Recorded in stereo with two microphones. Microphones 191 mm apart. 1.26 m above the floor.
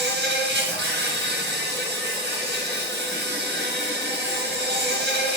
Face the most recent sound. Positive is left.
turn(degrees=-60)  # may be behind; listen again after turning